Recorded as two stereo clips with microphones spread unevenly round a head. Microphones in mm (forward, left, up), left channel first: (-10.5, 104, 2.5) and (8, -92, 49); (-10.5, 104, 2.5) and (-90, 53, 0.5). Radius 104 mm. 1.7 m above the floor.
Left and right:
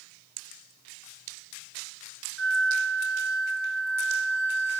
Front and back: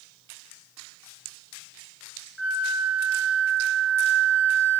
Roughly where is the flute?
Left.